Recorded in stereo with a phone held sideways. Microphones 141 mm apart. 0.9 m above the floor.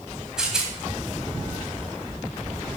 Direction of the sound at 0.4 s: 5° right (ahead or behind).